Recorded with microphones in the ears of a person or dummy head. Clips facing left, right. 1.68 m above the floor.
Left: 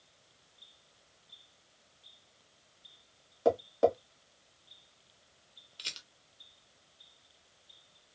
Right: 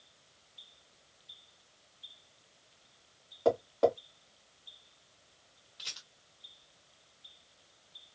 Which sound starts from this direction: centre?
Tapping, at 3.5 s.